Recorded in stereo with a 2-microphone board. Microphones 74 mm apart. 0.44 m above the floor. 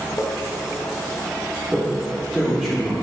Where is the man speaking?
5° right (ahead or behind), 0.8 m.